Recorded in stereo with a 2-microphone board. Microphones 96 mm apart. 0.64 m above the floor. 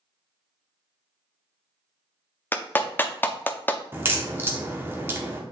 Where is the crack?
20° right (ahead or behind), 1.2 m.